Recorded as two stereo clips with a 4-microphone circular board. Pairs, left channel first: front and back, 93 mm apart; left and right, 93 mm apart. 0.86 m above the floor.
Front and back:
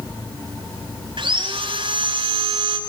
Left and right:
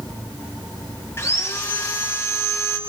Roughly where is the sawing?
Behind left.